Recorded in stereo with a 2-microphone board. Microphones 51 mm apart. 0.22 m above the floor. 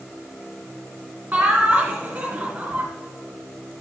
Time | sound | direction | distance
1.3 | laughter | 30° right (ahead or behind) | 2.5 m